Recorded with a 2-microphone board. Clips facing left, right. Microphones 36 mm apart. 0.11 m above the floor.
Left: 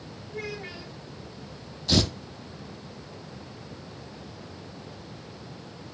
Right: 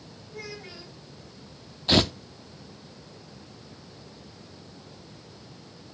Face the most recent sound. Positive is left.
turn(degrees=-35)  # may be behind; listen again after turning